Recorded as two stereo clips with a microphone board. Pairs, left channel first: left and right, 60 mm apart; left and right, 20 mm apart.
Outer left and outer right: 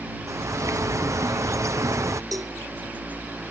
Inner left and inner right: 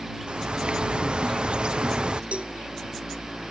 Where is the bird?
60° right (ahead or behind).